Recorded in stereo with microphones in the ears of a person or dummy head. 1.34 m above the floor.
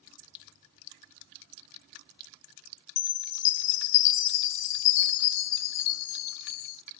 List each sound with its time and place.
3.0 s a chime: 65° left (ahead or behind), 0.5 m